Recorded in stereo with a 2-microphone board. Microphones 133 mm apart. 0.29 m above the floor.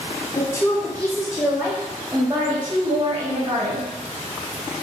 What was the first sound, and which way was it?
A woman speaking, 25° left (ahead or behind).